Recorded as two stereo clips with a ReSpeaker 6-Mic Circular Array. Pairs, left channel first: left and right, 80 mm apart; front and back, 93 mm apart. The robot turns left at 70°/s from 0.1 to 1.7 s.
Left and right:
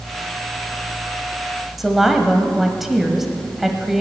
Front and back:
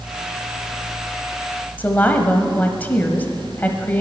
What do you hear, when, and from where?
1.8 s a woman speaking: 5° right, 0.9 m